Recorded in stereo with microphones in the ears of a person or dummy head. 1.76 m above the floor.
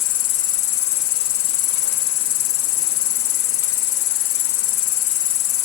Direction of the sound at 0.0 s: 75° left (ahead or behind).